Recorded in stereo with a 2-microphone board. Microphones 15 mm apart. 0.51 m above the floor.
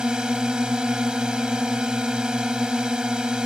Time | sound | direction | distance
0.0 | a drone | 60° right (ahead or behind) | ?